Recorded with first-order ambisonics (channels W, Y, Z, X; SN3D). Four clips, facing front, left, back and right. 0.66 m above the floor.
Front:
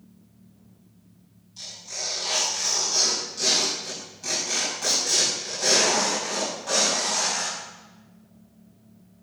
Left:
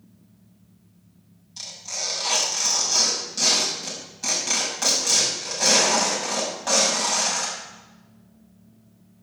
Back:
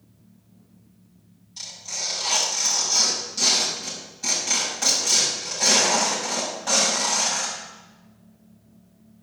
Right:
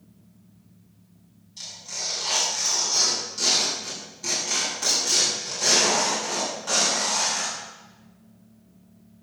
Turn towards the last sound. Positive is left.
turn(degrees=110)